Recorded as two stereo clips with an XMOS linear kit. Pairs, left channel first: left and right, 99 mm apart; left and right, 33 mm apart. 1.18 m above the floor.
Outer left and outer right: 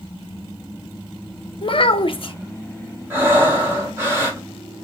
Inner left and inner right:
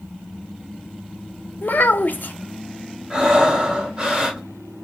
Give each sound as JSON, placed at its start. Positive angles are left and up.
{"t": 1.6, "sound": "a child speaking", "side_deg": 65, "distance_m": 0.6}
{"t": 3.1, "sound": "breathing", "side_deg": -25, "distance_m": 1.4}